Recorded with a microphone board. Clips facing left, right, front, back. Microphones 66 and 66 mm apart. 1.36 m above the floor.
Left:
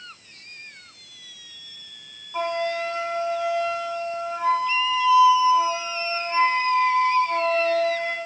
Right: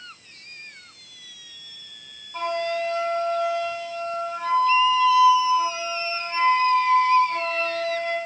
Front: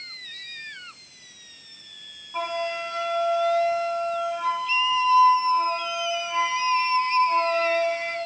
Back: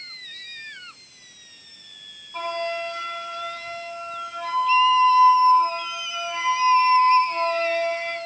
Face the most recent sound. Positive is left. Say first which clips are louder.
# even, even
turn(degrees=60)